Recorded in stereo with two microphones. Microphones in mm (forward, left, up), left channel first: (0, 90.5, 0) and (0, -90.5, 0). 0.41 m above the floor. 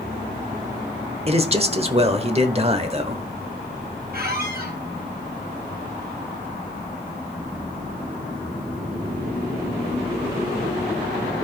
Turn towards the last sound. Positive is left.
turn(degrees=-60)  # may be behind; listen again after turning